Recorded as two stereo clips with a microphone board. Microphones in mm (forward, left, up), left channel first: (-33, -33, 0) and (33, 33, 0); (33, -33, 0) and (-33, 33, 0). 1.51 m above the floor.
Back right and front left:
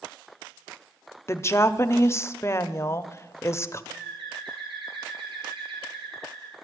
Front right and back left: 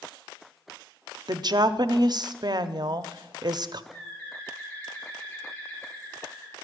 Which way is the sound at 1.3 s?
170° left.